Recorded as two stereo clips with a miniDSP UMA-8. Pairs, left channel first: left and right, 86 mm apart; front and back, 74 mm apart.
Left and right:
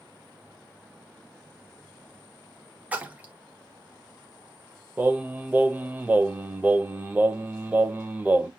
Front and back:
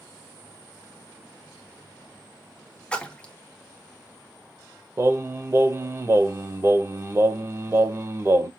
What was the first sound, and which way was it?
A splash, 50° right.